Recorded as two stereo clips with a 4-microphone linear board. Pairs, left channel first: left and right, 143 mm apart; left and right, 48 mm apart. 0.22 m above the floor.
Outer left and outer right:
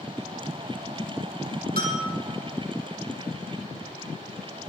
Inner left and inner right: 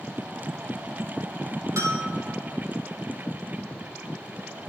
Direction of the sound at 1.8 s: 80° right.